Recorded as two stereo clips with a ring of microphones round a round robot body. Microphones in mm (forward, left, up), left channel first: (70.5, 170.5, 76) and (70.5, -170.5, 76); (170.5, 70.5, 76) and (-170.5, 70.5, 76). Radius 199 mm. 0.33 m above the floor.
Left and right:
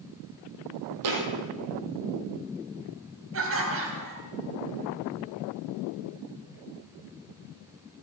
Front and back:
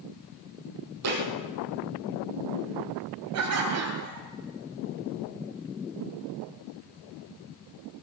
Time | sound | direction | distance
1.0 | a thud | 130° right | 2.5 m
3.3 | laughter | 140° right | 3 m